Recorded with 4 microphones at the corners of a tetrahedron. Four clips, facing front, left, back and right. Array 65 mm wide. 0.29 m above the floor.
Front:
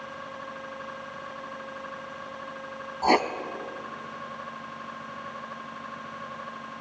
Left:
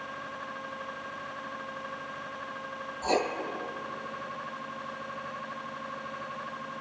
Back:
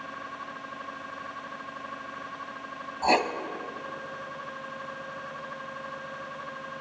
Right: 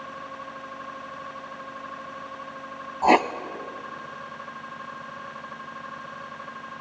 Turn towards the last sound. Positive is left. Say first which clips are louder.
# right 10 dB, front 2 dB
turn(degrees=-85)